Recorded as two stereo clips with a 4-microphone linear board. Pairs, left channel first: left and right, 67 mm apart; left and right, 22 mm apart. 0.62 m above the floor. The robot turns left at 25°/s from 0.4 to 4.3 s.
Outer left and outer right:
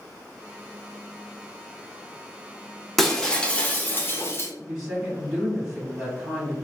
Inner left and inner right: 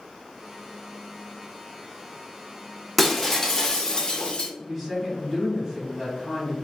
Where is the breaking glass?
Straight behind, 0.5 m; by 4.5 s 145° left, 0.5 m.